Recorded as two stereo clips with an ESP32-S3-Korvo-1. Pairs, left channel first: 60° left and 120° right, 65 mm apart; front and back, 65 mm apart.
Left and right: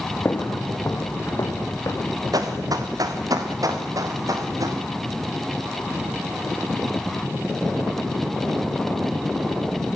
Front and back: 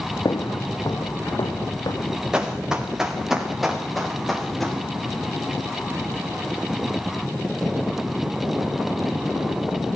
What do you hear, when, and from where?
0.2 s footsteps: 10° left, 1.6 m; by 2.2 s 25° left, 3 m
2.3 s running footsteps: 105° right, 3.5 m; by 4.8 s 90° right, 5.5 m